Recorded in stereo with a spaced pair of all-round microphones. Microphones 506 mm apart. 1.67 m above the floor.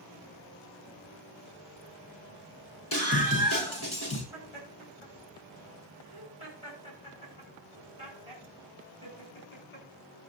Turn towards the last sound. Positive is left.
turn(degrees=90)